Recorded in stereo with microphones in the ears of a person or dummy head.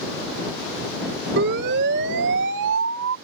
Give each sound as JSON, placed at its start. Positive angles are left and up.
{"t": 1.4, "sound": "a siren", "side_deg": -60}